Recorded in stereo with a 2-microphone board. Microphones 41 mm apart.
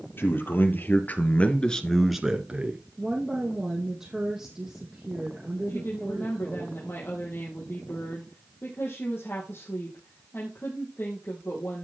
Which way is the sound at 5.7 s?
70° left (ahead or behind).